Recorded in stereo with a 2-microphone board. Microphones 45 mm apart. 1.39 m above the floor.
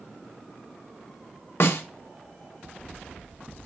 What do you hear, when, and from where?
1.6 s a snare drum: 60° left (ahead or behind), 0.6 m